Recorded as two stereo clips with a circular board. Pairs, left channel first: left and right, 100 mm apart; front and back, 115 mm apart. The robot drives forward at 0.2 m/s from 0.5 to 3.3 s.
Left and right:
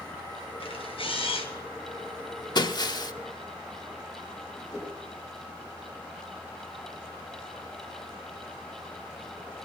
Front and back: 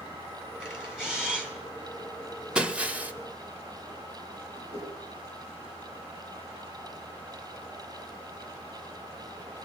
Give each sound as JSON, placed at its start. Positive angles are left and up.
{"t": 0.6, "sound": "a camera shutter", "azimuth_deg": 95, "distance_m": 3.0}
{"t": 2.5, "sound": "breaking glass", "azimuth_deg": 100, "distance_m": 0.9}
{"t": 4.7, "sound": "a whoosh", "azimuth_deg": -165, "distance_m": 7.0}